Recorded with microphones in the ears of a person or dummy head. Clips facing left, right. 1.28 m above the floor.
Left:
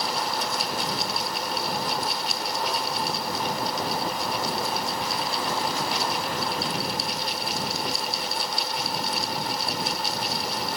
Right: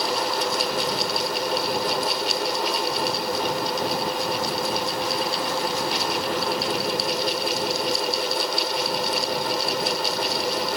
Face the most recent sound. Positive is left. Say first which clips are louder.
# right 4 dB
turn(degrees=-65)  # may be behind; listen again after turning